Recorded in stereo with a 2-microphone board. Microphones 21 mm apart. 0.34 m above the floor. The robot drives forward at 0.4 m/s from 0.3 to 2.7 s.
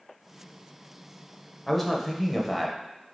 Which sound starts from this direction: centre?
A man speaking, at 1.7 s.